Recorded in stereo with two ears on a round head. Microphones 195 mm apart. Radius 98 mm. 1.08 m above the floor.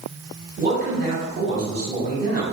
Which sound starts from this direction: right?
A man speaking, at 0.6 s.